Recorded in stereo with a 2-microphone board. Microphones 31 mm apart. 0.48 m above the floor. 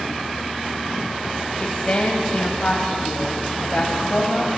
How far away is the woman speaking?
About 3 m.